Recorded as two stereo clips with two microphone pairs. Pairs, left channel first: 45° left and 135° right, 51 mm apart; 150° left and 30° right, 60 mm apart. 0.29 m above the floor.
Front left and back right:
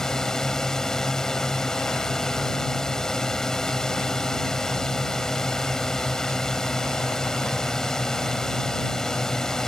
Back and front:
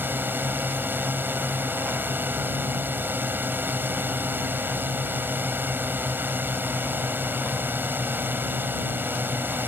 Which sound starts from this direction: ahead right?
A drone, at 0.0 s.